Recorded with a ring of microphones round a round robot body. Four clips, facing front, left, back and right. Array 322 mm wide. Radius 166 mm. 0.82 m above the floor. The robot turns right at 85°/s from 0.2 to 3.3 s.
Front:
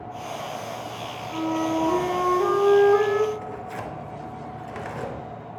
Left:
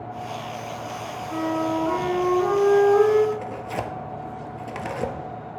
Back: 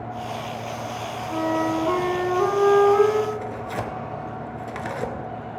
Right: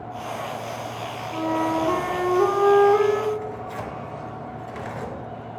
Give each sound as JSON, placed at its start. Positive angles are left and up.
{"t": 1.3, "sound": "a flute", "azimuth_deg": 155, "distance_m": 2.0}
{"t": 3.3, "sound": "tearing paper", "azimuth_deg": 125, "distance_m": 1.1}